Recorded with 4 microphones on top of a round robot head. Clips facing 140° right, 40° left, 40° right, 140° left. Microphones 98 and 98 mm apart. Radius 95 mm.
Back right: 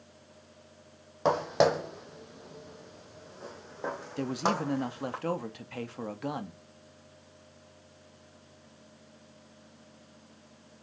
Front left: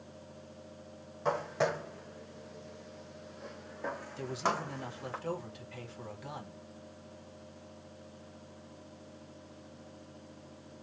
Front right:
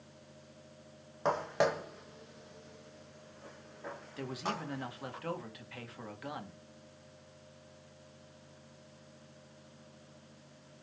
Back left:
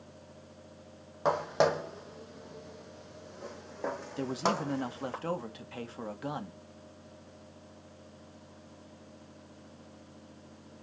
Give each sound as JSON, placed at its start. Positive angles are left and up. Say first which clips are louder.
{"t": 1.2, "sound": "footsteps", "louder": "back right 7 dB, back left 4 dB", "azimuth_deg": -145, "distance_m": 1.6}
{"t": 4.2, "sound": "a man speaking", "louder": "back right 4 dB, back left 7 dB", "azimuth_deg": -165, "distance_m": 1.9}